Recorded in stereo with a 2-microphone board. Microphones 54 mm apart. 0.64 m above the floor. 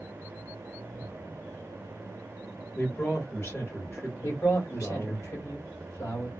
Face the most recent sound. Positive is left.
turn(degrees=70)  # may be behind; listen again after turning